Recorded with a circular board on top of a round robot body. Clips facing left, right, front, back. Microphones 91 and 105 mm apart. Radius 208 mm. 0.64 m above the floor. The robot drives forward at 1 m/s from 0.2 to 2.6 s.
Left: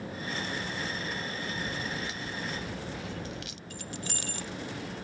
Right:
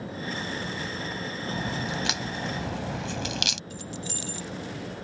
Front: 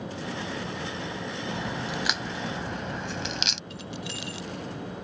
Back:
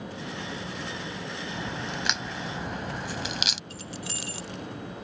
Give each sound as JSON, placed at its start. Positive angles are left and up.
{"t": 1.5, "sound": "a crack", "azimuth_deg": -80}
{"t": 3.7, "sound": "keys jangling", "azimuth_deg": 130}